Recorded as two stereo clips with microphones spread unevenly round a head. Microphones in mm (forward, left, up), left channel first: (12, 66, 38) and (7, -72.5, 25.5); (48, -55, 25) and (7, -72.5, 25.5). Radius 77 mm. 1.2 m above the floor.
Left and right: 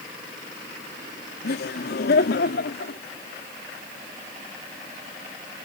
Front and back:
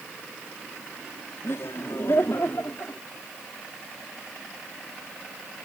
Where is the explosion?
No explosion in this recording.